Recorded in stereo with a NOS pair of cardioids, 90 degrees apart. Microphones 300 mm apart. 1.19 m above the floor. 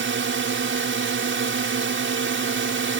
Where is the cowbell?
No cowbell in this recording.